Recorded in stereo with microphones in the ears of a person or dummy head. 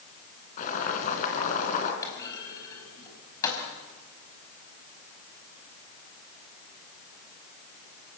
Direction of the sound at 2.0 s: 25° left (ahead or behind).